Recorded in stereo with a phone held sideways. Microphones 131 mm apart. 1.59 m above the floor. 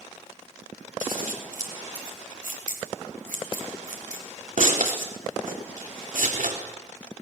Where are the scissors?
85° right, 4.5 m.